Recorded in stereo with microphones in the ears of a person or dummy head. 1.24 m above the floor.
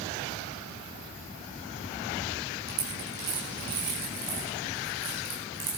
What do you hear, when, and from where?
2.7 s a dropped coin: 50° right (ahead or behind), 6.5 m